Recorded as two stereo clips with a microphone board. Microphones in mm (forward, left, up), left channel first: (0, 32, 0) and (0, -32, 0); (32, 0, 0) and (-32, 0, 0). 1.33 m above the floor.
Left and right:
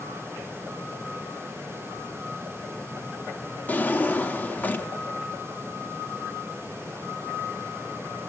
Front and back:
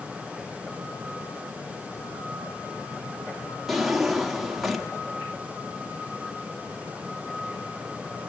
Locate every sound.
3.7 s a drawer: 95° left, 0.9 m